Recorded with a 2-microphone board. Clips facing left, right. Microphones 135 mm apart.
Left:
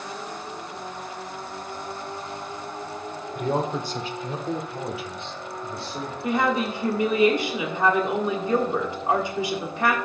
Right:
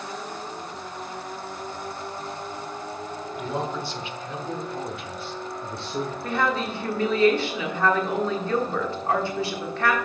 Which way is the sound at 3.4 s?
50° left (ahead or behind).